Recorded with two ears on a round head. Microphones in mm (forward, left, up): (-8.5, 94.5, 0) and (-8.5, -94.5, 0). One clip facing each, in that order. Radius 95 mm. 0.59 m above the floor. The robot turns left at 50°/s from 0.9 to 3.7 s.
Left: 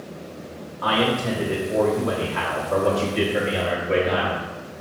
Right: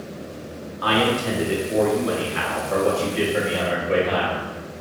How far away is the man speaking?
About 1.0 m.